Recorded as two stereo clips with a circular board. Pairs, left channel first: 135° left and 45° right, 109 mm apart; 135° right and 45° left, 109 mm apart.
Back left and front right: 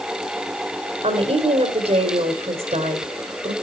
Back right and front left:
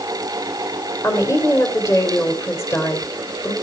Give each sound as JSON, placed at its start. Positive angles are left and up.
{"t": 1.0, "sound": "a woman speaking", "azimuth_deg": -75, "distance_m": 3.0}